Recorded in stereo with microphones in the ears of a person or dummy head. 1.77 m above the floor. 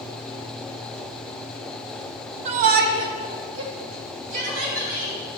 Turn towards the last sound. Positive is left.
turn(degrees=-65)  # may be behind; listen again after turning